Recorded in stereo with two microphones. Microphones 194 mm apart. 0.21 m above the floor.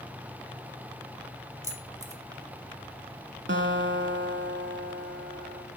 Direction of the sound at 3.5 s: 70° right (ahead or behind).